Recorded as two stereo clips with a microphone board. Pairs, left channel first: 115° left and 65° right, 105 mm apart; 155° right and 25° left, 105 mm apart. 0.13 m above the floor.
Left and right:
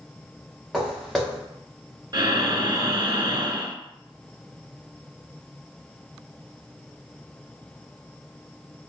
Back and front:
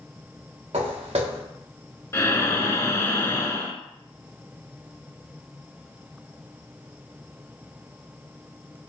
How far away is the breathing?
About 0.6 m.